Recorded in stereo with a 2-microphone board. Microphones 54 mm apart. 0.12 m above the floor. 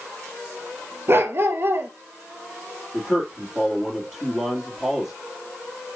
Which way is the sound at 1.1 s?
40° right (ahead or behind).